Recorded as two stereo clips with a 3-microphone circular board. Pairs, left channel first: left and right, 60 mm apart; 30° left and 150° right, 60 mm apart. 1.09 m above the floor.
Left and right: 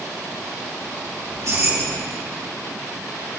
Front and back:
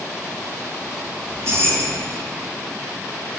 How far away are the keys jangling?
About 5 m.